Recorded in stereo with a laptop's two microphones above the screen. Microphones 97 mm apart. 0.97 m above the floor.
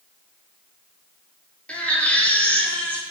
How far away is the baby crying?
About 1.6 m.